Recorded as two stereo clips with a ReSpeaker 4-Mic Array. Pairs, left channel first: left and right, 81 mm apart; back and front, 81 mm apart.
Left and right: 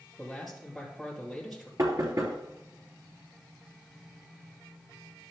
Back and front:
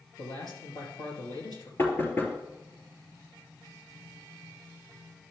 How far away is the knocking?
About 2.5 m.